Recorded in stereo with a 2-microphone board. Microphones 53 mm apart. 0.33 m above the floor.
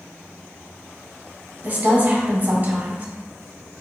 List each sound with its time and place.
1.6 s a woman speaking: 35° right (ahead or behind), 1.9 m